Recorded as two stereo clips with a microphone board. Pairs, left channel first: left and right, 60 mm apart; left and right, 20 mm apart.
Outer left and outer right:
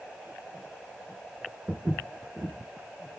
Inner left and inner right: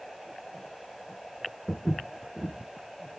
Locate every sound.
1.7 s footsteps: 55° right (ahead or behind), 0.8 m